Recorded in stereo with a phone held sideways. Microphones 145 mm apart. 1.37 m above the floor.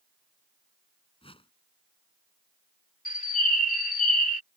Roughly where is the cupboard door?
No cupboard door in this recording.